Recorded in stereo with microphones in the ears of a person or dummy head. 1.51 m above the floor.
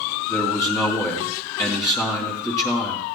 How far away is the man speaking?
About 2.5 m.